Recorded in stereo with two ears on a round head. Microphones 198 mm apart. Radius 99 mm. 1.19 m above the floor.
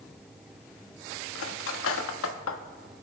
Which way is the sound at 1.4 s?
65° left (ahead or behind).